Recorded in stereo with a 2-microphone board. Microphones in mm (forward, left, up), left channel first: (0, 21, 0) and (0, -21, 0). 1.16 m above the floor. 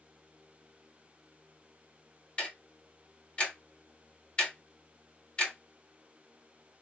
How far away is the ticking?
About 2.5 m.